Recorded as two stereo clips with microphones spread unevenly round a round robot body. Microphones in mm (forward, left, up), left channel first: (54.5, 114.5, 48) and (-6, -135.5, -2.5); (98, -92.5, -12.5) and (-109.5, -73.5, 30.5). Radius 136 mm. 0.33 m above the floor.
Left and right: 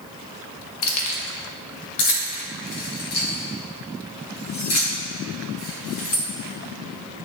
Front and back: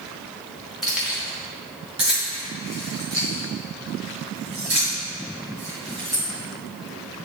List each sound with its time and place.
0.8 s keys jangling: 75° left, 1.0 m; by 6.2 s 125° left, 4 m